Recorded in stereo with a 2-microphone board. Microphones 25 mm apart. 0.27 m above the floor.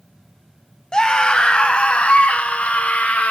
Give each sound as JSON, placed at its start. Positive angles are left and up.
{"t": 0.9, "sound": "a scream", "side_deg": 30, "distance_m": 1.4}